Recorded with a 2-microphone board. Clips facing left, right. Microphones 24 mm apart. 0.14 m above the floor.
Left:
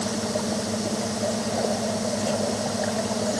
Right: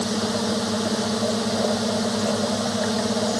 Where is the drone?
45° right (ahead or behind).